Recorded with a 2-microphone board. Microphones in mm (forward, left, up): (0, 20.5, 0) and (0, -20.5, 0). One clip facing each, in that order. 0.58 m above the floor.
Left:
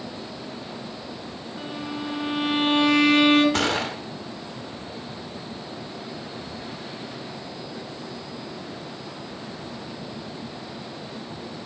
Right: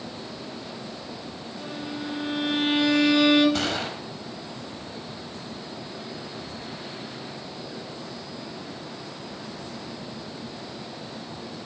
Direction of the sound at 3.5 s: 65° left (ahead or behind).